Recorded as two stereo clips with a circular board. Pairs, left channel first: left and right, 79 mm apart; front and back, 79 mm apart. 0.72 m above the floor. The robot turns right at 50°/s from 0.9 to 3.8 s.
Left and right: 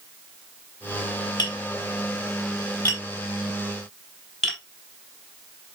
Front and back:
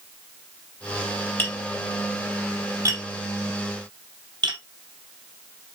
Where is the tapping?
55° left, 3.5 m; by 4.6 s 175° left, 3.5 m.